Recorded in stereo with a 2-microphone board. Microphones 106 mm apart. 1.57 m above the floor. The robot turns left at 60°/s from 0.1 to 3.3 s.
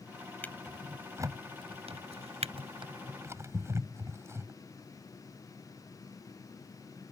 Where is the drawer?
20° left (ahead or behind); by 4.5 s 25° right (ahead or behind).